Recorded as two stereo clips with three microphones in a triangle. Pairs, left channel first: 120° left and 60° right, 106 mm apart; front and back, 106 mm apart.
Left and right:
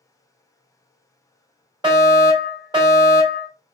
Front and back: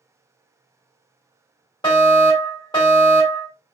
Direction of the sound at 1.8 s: 30° right.